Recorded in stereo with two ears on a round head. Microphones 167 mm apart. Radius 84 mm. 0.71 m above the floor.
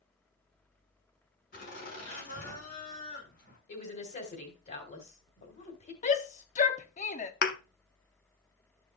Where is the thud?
55° left (ahead or behind), 0.9 m.